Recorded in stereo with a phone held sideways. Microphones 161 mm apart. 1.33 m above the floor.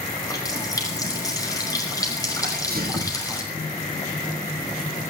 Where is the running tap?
20° left (ahead or behind), 5.5 m.